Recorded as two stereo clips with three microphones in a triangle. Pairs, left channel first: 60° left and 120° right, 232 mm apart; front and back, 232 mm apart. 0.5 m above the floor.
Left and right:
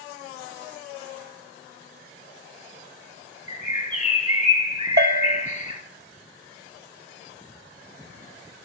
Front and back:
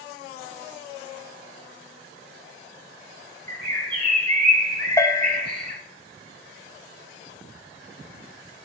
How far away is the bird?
About 0.9 m.